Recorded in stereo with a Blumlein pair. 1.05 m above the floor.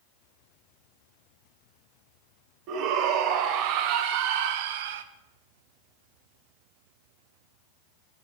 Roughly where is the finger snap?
No finger snap in this recording.